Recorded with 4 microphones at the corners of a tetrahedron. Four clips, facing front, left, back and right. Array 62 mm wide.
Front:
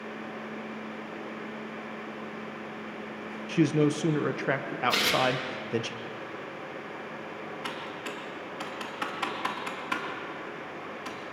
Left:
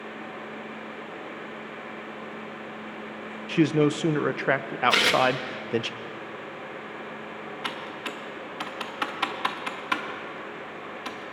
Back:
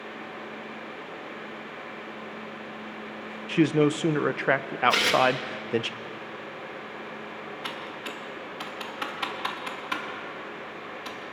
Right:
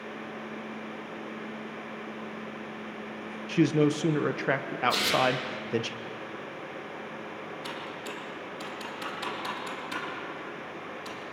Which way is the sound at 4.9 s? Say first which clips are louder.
Left 6 dB, back 3 dB; 100° left.